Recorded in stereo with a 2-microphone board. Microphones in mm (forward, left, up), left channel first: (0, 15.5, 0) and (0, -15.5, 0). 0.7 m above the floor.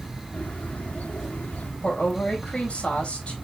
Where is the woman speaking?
35° left (ahead or behind), 3.5 m.